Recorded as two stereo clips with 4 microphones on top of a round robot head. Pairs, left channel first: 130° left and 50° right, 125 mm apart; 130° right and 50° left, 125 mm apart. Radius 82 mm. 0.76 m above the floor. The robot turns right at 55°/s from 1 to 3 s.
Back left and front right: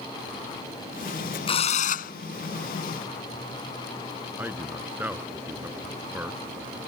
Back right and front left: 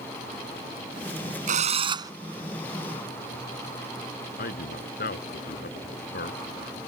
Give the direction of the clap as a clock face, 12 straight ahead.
I don't hear a clap.